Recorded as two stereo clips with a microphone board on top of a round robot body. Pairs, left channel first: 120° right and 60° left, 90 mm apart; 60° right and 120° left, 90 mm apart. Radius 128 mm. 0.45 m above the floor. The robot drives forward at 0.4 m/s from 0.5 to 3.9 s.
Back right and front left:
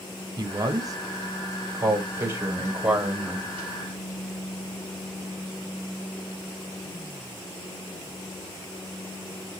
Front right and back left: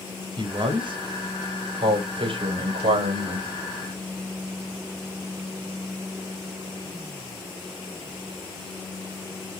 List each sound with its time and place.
0.4 s a man speaking: 95° left, 1.5 m; by 3.5 s 135° left, 2 m